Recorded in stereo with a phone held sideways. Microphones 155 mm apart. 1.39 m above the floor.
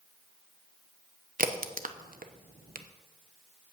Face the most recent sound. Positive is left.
turn(degrees=-60)  # may be behind; listen again after turning